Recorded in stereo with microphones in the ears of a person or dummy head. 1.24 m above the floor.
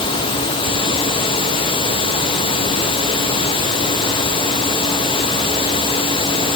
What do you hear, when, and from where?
Only background noise.